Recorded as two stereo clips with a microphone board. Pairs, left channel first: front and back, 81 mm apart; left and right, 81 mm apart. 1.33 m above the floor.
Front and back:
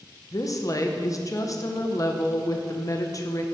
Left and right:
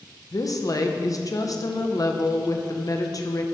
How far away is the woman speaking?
About 0.8 m.